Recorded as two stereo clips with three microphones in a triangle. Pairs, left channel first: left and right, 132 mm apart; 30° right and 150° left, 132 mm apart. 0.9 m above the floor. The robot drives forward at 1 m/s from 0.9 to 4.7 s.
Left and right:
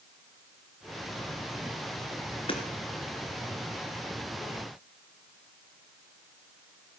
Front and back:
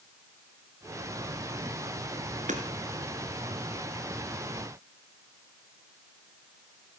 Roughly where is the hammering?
Behind left.